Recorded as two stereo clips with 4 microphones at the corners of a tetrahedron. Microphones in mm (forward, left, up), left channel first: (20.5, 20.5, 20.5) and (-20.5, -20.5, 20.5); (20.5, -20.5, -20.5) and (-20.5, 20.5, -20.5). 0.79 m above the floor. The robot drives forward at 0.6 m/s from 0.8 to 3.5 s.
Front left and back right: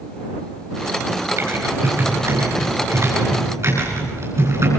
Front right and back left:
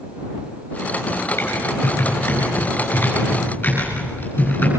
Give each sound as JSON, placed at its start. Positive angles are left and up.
{"t": 1.4, "sound": "typing on a keyboard", "azimuth_deg": -100, "distance_m": 9.5}